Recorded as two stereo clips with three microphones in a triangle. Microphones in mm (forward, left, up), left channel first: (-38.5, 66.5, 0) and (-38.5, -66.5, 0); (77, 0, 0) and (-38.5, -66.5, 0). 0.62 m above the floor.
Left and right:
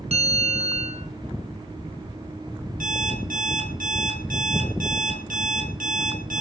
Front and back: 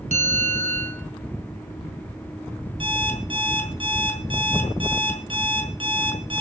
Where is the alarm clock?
100° right, 4.5 m.